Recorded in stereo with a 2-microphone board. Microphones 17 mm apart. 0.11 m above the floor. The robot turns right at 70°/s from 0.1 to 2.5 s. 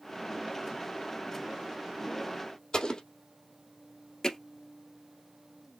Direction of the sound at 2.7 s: 45° left (ahead or behind).